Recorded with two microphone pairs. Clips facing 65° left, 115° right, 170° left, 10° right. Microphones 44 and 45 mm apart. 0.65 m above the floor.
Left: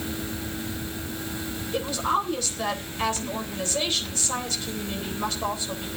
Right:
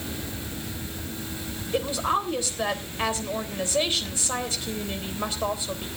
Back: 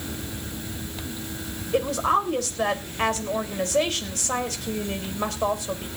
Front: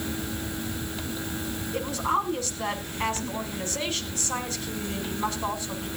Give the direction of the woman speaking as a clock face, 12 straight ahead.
6 o'clock.